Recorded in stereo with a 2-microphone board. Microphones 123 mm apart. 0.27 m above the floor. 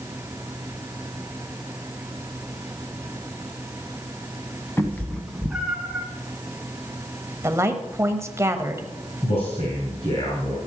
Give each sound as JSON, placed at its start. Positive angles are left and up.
{"t": 4.8, "sound": "a cat meowing", "side_deg": 20, "distance_m": 1.3}
{"t": 7.4, "sound": "a woman speaking", "side_deg": -20, "distance_m": 1.2}
{"t": 9.2, "sound": "a man speaking", "side_deg": 55, "distance_m": 4.0}